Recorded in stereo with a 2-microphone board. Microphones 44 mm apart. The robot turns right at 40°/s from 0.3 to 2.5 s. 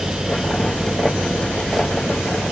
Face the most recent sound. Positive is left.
No sound to turn to.